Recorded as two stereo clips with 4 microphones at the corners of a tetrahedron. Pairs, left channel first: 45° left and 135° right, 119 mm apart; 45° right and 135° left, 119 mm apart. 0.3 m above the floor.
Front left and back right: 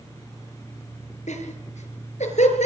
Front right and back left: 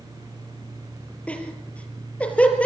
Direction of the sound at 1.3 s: 35° left.